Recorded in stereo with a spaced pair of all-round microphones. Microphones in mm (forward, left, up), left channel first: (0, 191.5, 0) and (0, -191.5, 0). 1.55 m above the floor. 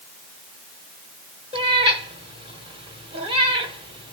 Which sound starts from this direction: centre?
A cat meowing, at 1.5 s.